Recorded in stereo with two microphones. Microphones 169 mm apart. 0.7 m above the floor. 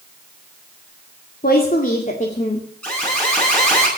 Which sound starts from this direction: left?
A woman speaking, at 1.4 s.